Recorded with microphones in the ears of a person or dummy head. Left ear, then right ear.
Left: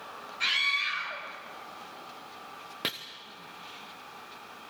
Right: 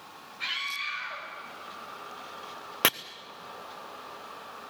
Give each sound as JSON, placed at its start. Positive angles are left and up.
{"t": 0.4, "sound": "a scream", "side_deg": 20, "distance_m": 6.0}
{"t": 2.8, "sound": "chopping", "side_deg": -35, "distance_m": 0.6}